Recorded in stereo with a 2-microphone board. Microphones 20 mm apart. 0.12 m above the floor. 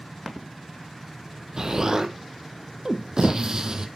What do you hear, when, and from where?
1.6 s an explosion: 40° right (ahead or behind), 0.7 m